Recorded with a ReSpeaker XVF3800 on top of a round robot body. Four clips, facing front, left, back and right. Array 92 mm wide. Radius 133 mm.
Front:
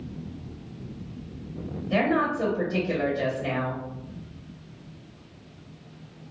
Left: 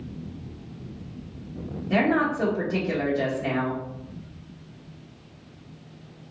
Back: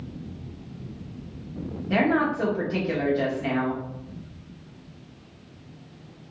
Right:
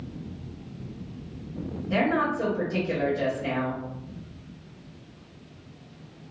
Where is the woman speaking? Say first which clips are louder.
Left 2 dB, back 1 dB; 155° left, 1.6 m.